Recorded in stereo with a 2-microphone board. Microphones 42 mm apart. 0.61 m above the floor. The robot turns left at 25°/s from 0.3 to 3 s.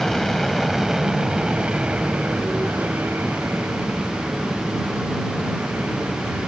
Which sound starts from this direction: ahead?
An aircraft, at 0.0 s.